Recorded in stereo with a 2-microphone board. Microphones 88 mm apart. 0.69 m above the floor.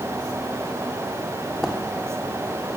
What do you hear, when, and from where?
1.6 s footsteps: centre (ahead or behind), 2 m